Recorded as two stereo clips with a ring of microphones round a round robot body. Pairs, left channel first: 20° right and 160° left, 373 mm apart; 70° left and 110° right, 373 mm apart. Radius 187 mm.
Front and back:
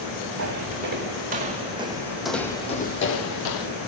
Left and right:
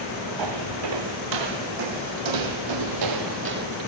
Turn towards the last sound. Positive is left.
turn(degrees=-45)